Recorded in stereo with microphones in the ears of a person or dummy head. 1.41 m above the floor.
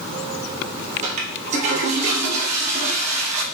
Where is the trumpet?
I don't hear a trumpet.